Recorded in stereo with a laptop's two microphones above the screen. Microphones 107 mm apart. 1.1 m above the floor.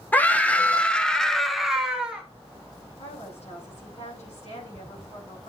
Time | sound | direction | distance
0.1 | a scream | 15° left (ahead or behind) | 1.1 m
3.0 | a woman speaking | 85° left | 8 m